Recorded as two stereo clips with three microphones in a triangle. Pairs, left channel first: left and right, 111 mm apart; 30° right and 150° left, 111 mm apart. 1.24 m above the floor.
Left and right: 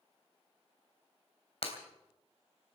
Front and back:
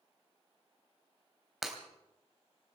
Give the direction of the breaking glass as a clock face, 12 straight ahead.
10 o'clock.